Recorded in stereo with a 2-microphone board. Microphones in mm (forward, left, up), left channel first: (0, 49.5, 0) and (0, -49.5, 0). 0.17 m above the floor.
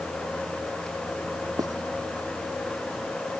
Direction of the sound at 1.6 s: 35° right (ahead or behind).